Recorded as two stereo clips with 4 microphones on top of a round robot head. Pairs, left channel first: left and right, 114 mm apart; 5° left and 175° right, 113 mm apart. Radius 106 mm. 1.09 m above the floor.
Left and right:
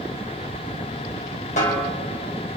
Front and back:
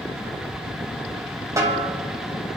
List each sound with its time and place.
1.6 s a snare drum: 125° left, 3 m